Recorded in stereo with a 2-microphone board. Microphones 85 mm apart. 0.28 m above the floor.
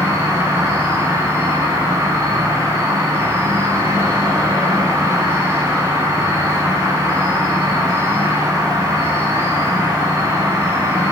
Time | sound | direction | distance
0.0 | an insect | 35° right (ahead or behind) | 5 m